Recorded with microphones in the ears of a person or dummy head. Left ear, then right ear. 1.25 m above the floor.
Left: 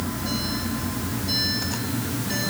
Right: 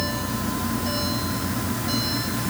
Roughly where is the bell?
I don't hear a bell.